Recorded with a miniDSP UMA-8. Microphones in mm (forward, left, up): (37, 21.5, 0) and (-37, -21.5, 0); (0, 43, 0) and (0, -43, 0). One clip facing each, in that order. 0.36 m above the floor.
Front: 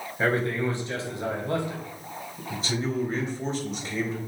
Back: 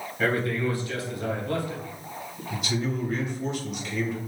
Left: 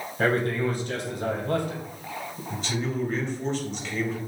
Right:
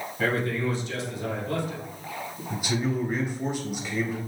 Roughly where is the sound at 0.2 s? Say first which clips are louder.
Front 1 dB, left 3 dB; left.